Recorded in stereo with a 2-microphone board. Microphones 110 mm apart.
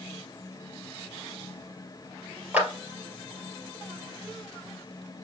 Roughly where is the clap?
Centre.